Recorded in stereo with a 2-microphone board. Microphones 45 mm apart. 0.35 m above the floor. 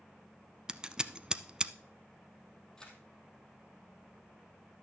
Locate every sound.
0.7 s scissors: 20° right (ahead or behind), 0.5 m
2.8 s a camera shutter: 15° left (ahead or behind), 3 m